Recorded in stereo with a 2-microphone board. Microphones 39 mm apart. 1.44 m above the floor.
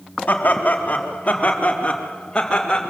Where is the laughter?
50° left (ahead or behind), 3.5 m; by 2.9 s 15° left (ahead or behind), 4 m.